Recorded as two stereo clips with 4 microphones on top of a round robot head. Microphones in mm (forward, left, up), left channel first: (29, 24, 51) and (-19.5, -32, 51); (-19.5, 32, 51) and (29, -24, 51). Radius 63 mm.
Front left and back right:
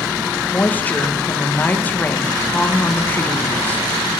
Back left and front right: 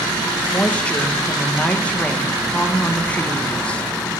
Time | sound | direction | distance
0.5 | a woman speaking | 80° left | 0.8 m